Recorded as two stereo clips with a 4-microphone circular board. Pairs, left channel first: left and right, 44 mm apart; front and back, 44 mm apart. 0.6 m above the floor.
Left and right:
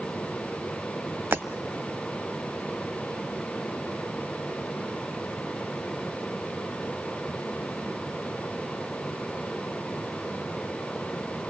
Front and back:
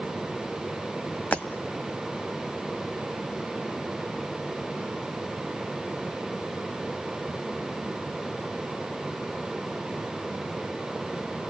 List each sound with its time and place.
1.3 s breaking glass: 55° right, 1.5 m